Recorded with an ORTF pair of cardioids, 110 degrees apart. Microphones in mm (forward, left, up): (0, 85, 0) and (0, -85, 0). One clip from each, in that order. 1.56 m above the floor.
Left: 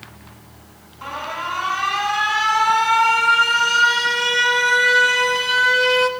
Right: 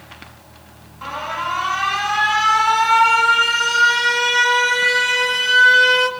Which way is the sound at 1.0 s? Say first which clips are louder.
Right 2 dB; 10° right.